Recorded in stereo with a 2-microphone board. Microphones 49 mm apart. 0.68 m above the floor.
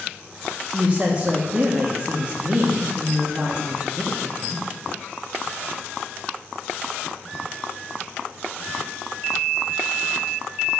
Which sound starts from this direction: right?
A woman speaking, at 0.7 s.